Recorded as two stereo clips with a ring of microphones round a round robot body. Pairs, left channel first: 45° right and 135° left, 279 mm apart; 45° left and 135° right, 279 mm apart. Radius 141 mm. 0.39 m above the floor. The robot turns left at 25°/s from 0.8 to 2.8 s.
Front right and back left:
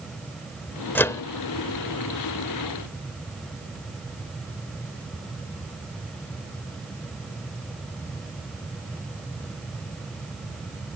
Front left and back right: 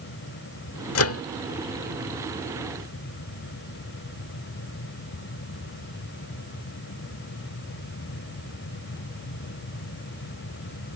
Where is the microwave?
35° left; by 1.2 s 30° left.